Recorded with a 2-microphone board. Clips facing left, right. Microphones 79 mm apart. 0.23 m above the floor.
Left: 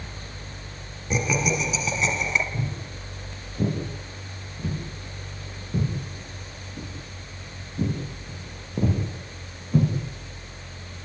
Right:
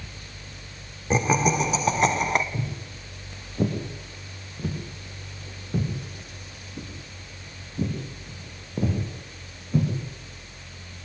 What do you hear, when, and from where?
1.1 s laughter: 35° right (ahead or behind), 2 m; by 2.4 s 55° right (ahead or behind), 2 m
2.5 s footsteps: 40° right (ahead or behind), 9.5 m; by 9.9 s 5° left (ahead or behind), 7.5 m